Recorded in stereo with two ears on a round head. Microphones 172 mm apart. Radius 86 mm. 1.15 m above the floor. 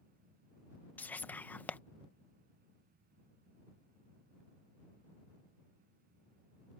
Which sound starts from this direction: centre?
Whispering, at 1.0 s.